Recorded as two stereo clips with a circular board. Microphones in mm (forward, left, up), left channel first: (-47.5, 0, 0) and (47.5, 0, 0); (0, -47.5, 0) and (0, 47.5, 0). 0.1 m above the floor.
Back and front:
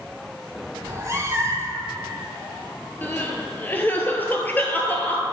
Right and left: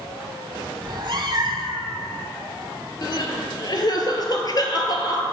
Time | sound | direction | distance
0.8 | a cat meowing | 55° left | 0.8 m
3.0 | crying | 115° right | 0.8 m